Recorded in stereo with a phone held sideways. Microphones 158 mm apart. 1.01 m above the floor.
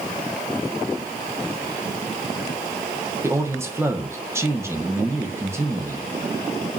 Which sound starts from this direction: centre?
A man speaking, at 3.2 s.